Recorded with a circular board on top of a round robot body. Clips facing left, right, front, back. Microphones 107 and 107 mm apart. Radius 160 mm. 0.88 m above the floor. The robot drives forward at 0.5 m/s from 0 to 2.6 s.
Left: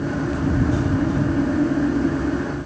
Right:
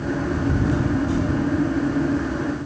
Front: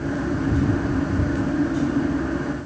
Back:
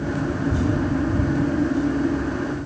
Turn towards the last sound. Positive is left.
No sound to turn to.